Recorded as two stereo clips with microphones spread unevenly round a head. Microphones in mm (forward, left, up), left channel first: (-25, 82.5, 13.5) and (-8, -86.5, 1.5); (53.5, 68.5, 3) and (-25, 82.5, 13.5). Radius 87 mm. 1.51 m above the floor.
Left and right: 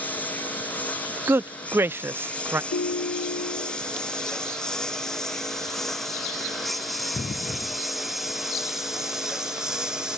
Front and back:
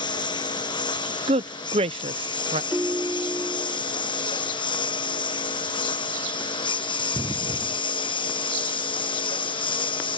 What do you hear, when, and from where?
0.0 s a lawn mower: 15° left; by 10.2 s straight ahead
1.3 s a man speaking: 160° right
2.7 s a ringtone: 95° left